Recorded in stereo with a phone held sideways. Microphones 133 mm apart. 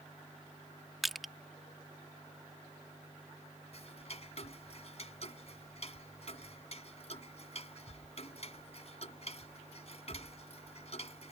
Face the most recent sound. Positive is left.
turn(degrees=50)  # may be behind; listen again after turning